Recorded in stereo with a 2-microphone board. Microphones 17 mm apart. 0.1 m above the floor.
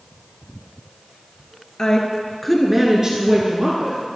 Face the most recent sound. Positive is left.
turn(degrees=-60)  # may be behind; listen again after turning